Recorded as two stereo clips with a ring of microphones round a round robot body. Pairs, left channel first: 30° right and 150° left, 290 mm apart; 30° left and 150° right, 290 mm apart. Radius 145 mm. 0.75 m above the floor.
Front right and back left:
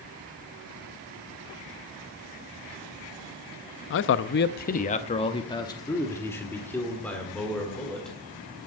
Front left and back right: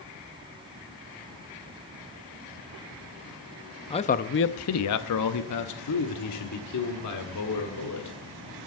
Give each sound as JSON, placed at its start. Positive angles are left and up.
{"t": 3.9, "sound": "a man speaking", "azimuth_deg": -35, "distance_m": 0.5}